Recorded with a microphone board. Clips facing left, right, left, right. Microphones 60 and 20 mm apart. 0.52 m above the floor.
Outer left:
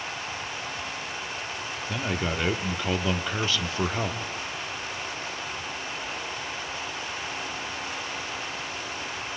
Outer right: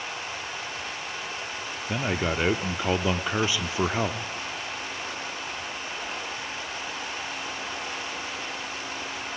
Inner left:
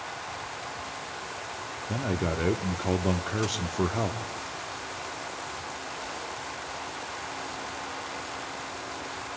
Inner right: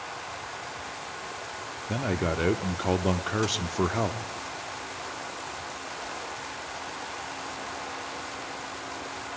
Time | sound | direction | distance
1.9 | a man speaking | 15° right (ahead or behind) | 1.0 m